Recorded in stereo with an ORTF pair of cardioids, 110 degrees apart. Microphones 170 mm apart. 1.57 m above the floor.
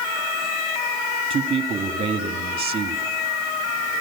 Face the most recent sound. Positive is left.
turn(degrees=-35)